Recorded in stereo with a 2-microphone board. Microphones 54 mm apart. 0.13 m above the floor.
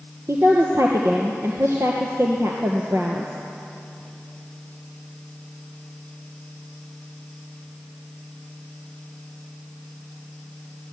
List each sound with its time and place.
0.3 s a woman speaking: 65° right (ahead or behind), 2.5 m